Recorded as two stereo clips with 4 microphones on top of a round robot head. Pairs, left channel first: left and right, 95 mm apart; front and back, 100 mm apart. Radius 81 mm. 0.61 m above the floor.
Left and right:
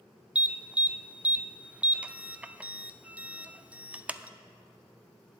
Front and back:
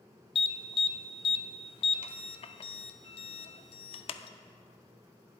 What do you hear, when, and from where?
0.3 s an alarm: 15° right, 0.5 m